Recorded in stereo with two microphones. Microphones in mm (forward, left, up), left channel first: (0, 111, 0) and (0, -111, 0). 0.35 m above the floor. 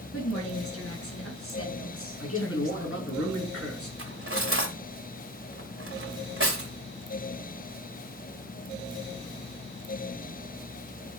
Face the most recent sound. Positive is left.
turn(degrees=-60)  # may be behind; listen again after turning